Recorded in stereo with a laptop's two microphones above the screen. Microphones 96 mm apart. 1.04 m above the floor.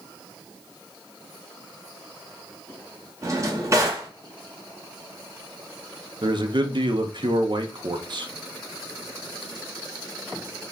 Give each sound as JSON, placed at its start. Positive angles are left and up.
{"t": 3.2, "sound": "a drawer", "side_deg": -30, "distance_m": 1.0}
{"t": 6.2, "sound": "a man speaking", "side_deg": -50, "distance_m": 0.6}